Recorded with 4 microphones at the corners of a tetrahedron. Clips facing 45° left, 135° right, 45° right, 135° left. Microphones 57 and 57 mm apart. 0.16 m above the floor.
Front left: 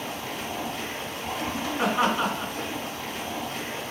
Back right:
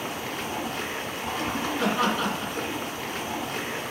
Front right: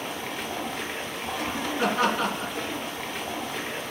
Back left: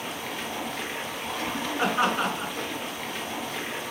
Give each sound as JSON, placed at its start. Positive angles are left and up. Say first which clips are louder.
{"t": 0.0, "sound": "running water", "louder": "back right 1 dB, front right 1 dB", "azimuth_deg": -130, "distance_m": 1.1}
{"t": 1.8, "sound": "laughter", "louder": "front left 2 dB, even", "azimuth_deg": 105, "distance_m": 1.8}